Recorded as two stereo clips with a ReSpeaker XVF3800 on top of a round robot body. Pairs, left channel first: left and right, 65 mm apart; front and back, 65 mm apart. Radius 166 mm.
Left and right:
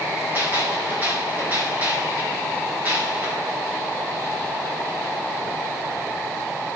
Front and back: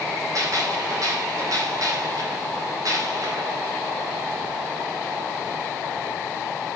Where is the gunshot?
150° right, 4.5 m.